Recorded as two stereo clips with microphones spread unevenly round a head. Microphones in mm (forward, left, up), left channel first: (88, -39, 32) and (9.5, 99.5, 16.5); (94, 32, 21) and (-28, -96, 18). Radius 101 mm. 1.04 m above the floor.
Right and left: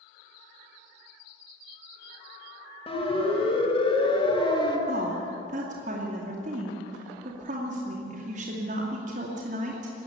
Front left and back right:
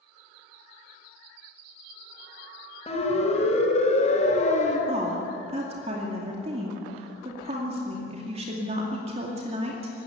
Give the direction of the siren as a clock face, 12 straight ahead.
12 o'clock.